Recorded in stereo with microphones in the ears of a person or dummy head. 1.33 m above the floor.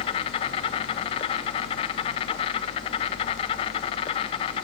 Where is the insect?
30° left (ahead or behind), 0.7 m.